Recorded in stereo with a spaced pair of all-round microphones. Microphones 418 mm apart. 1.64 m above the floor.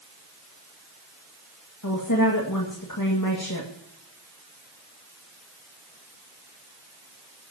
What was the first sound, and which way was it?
A woman speaking, 45° left (ahead or behind).